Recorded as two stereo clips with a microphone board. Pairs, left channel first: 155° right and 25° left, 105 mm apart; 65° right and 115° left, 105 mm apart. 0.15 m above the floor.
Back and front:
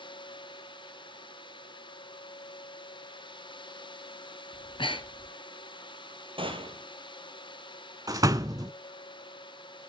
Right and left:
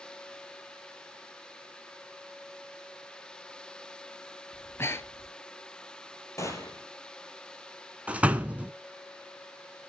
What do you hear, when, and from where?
4.5 s breathing: 130° right, 1.1 m
6.4 s a gunshot: 10° right, 3 m
8.1 s a door slam: 45° left, 0.9 m